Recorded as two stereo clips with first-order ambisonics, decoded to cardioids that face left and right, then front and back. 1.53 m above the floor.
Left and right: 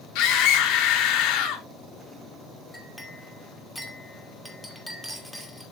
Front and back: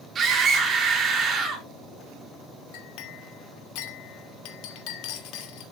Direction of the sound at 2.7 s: Straight ahead.